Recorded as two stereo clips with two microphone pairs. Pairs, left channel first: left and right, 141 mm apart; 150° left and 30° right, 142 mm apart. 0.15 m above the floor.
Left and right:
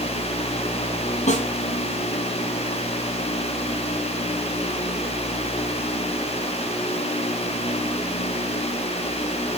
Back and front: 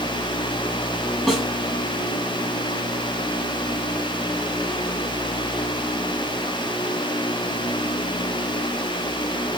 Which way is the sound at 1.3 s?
60° left.